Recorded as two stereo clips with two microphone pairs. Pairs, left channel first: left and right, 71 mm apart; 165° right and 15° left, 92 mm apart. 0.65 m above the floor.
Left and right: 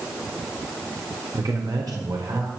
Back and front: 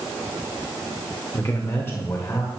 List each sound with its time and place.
1.3 s a man speaking: 105° right, 1.3 m